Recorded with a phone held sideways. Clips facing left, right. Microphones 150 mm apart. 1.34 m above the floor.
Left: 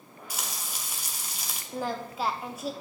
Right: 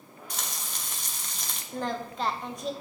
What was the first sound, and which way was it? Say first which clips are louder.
Frying: even; 5° left (ahead or behind).